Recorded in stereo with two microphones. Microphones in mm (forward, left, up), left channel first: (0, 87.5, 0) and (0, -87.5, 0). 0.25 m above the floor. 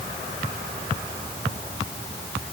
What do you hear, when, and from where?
Only background noise.